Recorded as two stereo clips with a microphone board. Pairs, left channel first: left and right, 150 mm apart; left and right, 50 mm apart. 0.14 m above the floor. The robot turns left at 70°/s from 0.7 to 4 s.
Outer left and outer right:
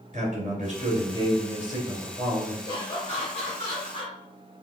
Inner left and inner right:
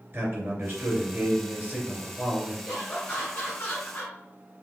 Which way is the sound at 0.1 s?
75° right.